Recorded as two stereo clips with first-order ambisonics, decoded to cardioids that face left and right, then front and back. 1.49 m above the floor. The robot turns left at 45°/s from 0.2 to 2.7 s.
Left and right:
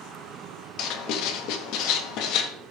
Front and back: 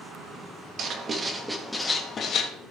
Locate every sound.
0.8 s writing: 125° left, 1.3 m; by 2.5 s 50° left, 1.3 m